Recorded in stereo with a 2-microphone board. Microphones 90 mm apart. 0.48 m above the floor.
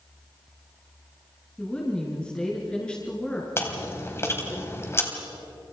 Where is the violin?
No violin in this recording.